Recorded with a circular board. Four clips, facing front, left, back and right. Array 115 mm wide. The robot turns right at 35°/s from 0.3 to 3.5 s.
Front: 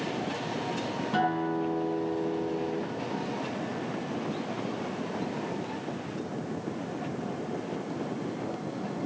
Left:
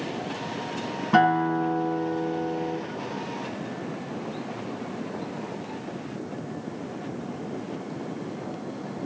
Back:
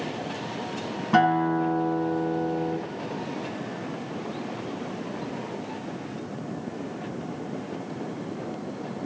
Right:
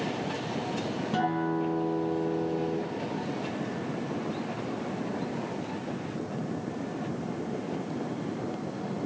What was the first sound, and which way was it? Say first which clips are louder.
A guitar: left 9 dB, back 8 dB; 125° left.